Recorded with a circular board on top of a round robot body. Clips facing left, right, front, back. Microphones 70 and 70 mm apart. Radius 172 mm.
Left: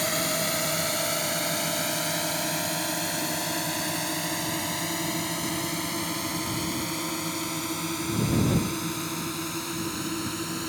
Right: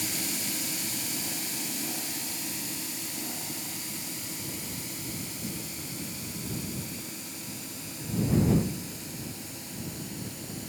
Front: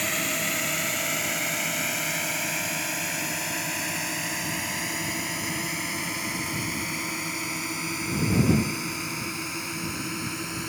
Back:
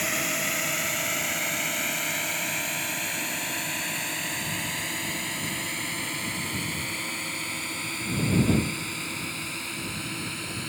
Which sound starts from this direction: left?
A drone, at 0.0 s.